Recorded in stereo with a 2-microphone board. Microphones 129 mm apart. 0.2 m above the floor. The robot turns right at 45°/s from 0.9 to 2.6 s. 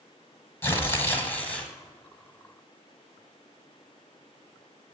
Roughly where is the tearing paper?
Centre.